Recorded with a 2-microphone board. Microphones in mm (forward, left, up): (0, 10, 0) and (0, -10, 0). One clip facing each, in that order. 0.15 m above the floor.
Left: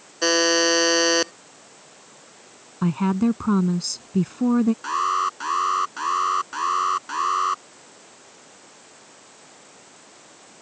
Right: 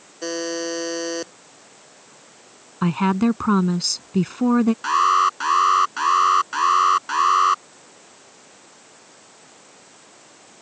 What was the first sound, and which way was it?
A buzzer, 45° left (ahead or behind).